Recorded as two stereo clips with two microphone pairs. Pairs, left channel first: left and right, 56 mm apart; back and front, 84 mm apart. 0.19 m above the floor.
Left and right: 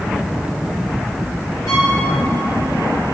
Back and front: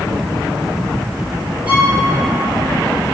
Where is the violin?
70° left, 4 m.